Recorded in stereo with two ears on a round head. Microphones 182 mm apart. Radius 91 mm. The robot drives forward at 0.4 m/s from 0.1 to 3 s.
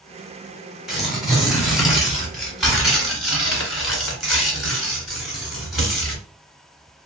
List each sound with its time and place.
0.9 s tearing paper: centre (ahead or behind), 1.3 m